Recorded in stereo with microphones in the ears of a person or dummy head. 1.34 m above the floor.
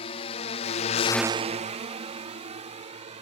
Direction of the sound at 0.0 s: 40° left (ahead or behind).